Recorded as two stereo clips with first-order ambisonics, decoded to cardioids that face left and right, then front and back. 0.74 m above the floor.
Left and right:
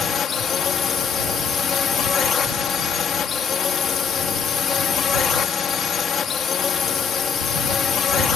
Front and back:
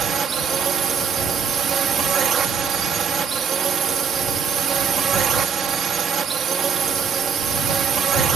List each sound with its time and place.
0.0 s a drone: 135° left